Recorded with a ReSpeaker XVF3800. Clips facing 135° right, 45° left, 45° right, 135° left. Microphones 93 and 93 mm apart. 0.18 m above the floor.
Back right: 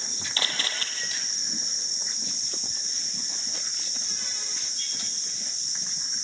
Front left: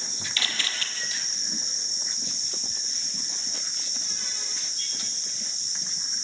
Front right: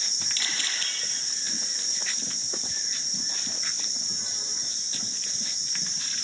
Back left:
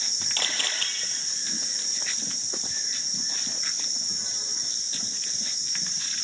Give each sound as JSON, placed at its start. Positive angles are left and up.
{"t": 0.4, "sound": "a camera shutter", "azimuth_deg": 170, "distance_m": 3.5}